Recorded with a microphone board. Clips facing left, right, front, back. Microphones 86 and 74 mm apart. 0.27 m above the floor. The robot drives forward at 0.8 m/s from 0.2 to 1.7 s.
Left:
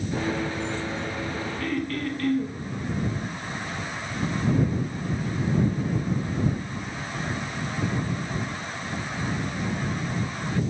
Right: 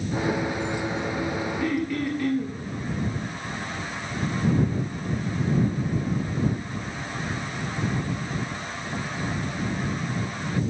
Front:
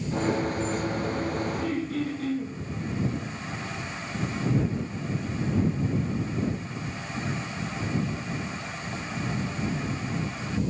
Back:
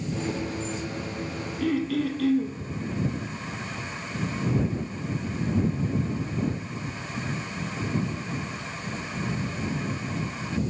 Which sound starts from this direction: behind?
Throat clearing, at 1.6 s.